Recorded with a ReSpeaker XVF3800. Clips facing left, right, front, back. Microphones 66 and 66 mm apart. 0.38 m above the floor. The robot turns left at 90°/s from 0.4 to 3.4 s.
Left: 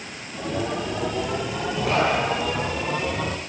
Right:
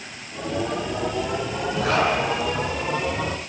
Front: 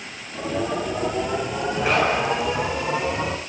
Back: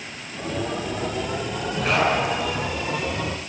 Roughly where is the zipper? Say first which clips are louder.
Right 1 dB, even; right.